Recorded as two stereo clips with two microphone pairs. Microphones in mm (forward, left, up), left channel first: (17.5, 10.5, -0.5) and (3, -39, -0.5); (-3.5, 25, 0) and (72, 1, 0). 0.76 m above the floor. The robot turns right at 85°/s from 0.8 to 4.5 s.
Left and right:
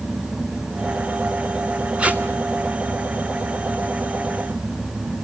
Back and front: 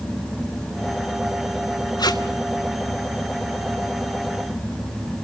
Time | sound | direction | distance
2.0 | tape being pulled | 175° right | 1.8 m